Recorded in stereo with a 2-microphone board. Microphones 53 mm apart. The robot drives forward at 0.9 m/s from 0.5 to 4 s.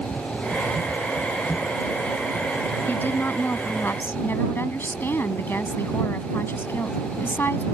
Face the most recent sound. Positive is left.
turn(degrees=45)  # may be behind; listen again after turning